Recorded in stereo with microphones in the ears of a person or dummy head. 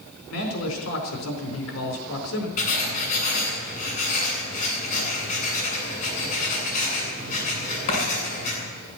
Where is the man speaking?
85° left, 4 m.